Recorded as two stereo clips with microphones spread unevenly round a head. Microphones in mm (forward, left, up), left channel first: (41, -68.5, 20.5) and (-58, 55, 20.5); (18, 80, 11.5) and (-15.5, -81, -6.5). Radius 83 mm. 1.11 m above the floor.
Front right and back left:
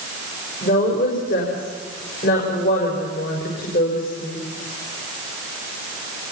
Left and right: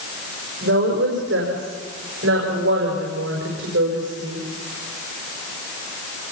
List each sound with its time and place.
0.6 s a woman speaking: 85° right, 5 m